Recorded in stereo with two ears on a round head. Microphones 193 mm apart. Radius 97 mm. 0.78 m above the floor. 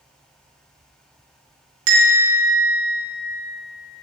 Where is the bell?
65° right (ahead or behind), 3 m.